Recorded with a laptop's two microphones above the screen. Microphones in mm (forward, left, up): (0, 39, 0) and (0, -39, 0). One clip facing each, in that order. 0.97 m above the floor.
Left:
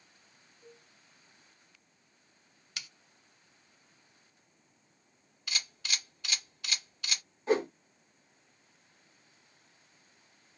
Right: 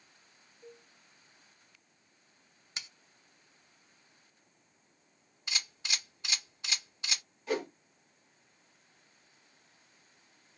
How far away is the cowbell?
About 1.6 m.